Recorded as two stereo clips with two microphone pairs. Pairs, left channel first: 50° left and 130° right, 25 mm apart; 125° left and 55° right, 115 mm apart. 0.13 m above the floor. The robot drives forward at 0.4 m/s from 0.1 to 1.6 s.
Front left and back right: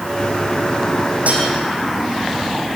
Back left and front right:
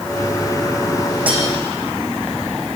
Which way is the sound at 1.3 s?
130° right.